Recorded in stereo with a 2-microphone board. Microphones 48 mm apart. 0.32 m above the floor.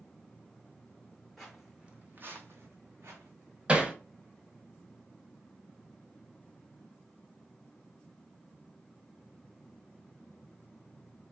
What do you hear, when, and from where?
1.4 s footsteps: centre (ahead or behind), 0.7 m; by 3.3 s 70° right (ahead or behind), 1.0 m
3.7 s hammering: 20° right (ahead or behind), 0.5 m